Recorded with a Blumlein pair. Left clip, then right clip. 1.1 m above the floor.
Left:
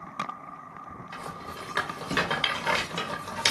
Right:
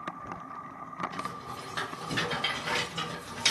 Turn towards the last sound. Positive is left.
turn(degrees=65)